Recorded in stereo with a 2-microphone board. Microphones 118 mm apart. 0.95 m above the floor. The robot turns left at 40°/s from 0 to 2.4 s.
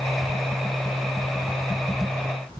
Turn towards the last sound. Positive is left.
No sound to turn to.